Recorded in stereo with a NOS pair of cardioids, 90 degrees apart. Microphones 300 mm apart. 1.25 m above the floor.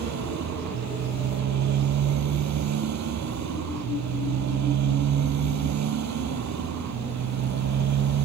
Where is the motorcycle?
65° right.